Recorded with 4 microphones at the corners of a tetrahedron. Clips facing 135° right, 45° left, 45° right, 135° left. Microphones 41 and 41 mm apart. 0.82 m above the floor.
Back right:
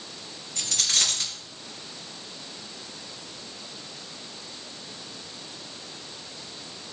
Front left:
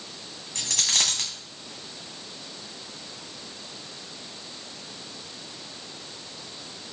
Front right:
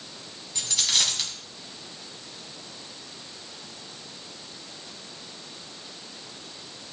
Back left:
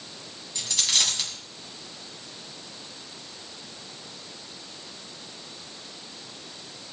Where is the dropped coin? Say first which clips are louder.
Front left 1 dB, even; 40° left, 2.5 m.